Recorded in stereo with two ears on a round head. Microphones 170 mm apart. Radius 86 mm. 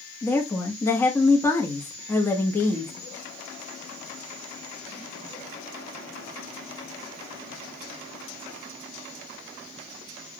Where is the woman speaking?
10° left (ahead or behind), 1.1 m.